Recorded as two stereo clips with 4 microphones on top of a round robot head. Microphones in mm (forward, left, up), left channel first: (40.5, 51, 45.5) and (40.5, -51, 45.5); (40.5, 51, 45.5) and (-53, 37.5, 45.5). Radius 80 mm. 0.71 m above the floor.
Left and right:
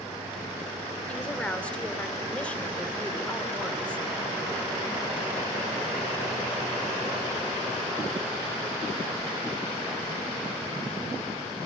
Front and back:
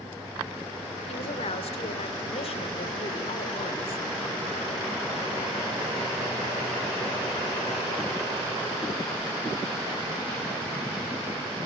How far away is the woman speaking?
About 2.5 m.